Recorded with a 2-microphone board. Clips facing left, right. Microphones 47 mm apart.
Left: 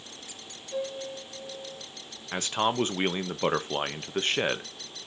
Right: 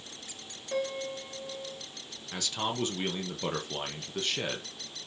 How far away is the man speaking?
About 1.1 m.